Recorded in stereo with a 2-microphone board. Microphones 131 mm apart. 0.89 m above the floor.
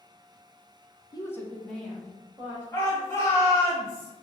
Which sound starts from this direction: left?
A woman speaking, at 1.1 s.